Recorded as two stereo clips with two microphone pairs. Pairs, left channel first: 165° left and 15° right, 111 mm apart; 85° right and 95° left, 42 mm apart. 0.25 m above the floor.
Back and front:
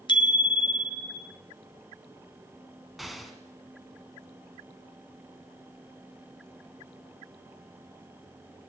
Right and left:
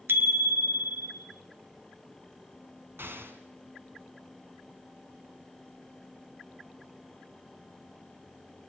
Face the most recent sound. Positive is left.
turn(degrees=75)